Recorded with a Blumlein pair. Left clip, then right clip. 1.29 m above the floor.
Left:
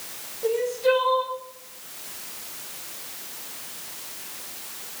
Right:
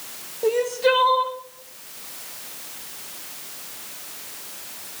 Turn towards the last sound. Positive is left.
turn(degrees=-65)